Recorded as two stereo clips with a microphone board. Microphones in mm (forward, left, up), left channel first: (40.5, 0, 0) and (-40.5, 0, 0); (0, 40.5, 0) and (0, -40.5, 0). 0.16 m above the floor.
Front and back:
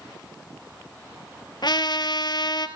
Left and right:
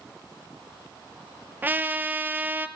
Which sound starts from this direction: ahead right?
A trumpet, at 1.6 s.